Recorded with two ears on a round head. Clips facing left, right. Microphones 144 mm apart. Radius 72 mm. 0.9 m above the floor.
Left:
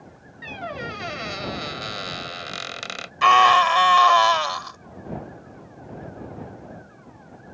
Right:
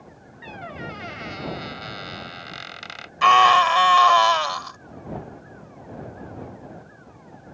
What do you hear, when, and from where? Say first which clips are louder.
0.4 s a squeak: left 3 dB; 55° left (ahead or behind)
3.2 s a scream: even; centre (ahead or behind)